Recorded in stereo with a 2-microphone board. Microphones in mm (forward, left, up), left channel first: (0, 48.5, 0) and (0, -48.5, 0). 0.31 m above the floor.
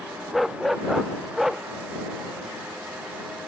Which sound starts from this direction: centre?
A dog barking, at 0.3 s.